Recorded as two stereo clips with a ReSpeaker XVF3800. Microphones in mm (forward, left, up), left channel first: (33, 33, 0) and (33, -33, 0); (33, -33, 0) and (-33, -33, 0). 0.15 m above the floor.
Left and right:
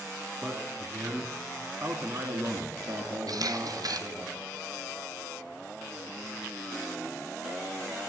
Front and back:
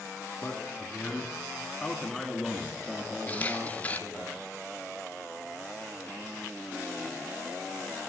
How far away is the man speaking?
About 1.7 m.